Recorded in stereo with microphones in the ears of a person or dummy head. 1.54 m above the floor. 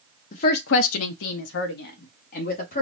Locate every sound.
0.3 s a woman speaking: 35° left (ahead or behind), 0.6 m; by 2.8 s 50° left (ahead or behind), 1.6 m